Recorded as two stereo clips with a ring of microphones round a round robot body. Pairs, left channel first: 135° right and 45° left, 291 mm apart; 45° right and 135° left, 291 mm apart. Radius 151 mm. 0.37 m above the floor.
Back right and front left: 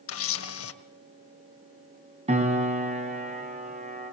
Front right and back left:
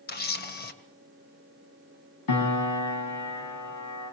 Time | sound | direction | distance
0.1 | a camera shutter | 100° right | 1.7 m
2.3 | a piano | 25° right | 3.5 m